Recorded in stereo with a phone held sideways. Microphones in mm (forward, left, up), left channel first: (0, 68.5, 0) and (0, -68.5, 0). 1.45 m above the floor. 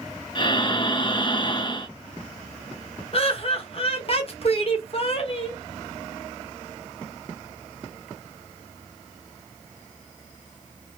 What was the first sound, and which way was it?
Breathing, 35° left (ahead or behind).